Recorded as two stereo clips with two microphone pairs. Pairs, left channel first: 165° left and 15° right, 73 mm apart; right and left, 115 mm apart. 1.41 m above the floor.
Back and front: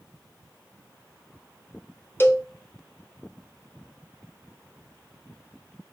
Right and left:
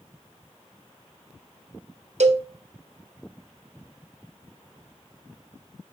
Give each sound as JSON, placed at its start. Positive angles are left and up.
{"t": 2.2, "sound": "a cowbell", "azimuth_deg": 100, "distance_m": 1.0}